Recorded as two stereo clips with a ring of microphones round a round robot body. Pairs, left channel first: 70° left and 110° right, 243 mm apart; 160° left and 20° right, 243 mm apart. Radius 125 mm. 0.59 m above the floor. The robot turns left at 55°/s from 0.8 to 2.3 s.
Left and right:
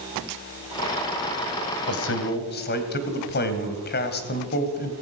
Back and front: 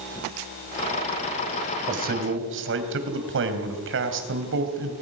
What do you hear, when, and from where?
1.9 s a man speaking: 40° left, 3 m; by 4.9 s 20° left, 3 m